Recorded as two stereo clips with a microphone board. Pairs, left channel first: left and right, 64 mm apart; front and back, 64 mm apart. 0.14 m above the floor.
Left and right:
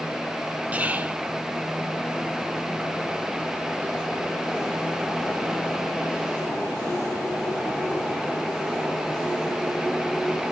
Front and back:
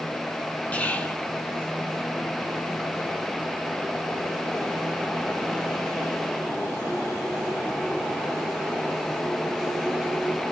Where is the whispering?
45° right, 1.6 m.